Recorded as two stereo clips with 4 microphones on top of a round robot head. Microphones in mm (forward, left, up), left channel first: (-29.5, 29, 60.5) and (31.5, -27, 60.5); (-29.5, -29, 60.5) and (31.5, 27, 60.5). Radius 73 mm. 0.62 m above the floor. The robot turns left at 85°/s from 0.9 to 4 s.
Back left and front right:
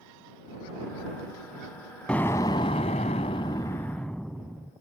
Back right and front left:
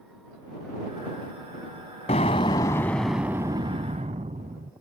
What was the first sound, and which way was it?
An explosion, 140° right.